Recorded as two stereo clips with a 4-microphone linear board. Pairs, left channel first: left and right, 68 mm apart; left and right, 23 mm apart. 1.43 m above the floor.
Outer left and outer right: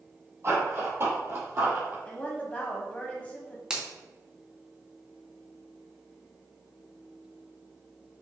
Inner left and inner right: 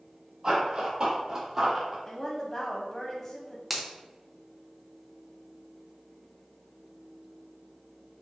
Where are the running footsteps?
40° right (ahead or behind), 1.9 m; by 1.9 s 25° right (ahead or behind), 1.6 m.